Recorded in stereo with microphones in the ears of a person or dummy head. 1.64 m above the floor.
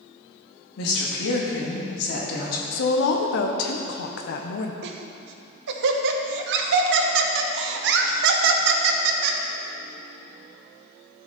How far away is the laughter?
About 1.0 m.